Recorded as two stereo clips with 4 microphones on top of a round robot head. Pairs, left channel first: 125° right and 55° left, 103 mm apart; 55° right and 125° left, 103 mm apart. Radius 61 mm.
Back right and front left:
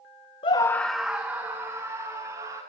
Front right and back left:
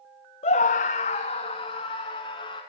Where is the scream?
85° right, 0.7 m; by 2.6 s 10° right, 3.5 m.